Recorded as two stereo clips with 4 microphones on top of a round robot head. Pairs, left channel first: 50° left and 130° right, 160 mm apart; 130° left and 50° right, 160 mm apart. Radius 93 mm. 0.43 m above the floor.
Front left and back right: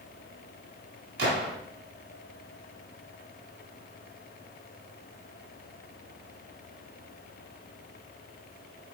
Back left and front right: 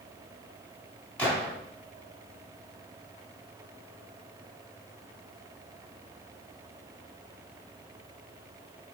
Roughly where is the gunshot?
Behind right.